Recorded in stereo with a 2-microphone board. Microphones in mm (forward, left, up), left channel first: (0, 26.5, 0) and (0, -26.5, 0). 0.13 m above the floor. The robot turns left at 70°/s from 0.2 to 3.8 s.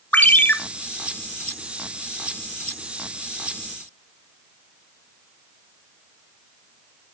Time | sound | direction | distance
0.1 | a ringtone | 30° left (ahead or behind) | 1.1 m